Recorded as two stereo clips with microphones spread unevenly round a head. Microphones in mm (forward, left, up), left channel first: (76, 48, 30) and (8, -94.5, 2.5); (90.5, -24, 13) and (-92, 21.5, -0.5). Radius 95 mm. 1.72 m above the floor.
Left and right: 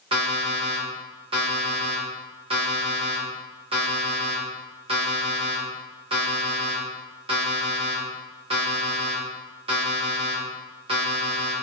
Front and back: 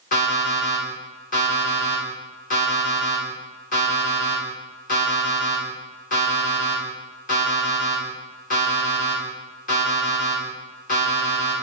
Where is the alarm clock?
60° right, 1.8 m.